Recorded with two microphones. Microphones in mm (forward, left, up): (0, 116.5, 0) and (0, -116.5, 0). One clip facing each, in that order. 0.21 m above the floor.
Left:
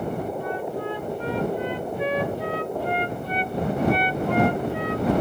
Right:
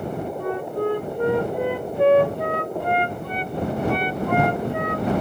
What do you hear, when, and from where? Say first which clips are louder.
0.4 s a flute: right 4 dB; 55° right (ahead or behind)